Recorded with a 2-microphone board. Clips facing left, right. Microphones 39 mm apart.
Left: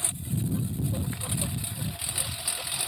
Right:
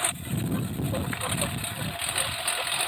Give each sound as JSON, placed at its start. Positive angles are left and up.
{"t": 0.0, "sound": "a lawn mower", "side_deg": -45}